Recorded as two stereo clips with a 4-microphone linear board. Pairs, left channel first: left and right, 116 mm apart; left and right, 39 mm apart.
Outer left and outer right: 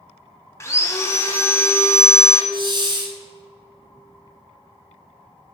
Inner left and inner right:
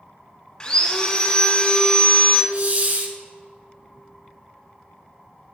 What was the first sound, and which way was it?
Sawing, 25° left (ahead or behind).